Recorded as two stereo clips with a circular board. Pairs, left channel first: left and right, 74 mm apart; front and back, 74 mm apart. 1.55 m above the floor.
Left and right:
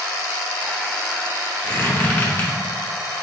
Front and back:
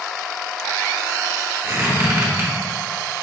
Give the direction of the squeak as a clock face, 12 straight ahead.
7 o'clock.